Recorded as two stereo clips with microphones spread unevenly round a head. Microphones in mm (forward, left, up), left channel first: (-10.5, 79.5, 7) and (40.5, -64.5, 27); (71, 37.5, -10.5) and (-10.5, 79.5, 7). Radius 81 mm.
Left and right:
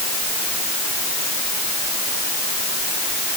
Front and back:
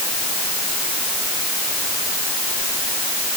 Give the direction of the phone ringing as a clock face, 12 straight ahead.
No phone ringing in this recording.